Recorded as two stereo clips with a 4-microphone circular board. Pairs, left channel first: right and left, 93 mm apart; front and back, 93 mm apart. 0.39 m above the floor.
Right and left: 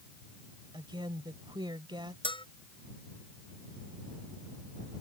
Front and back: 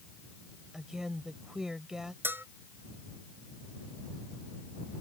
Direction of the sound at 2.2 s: 115° right.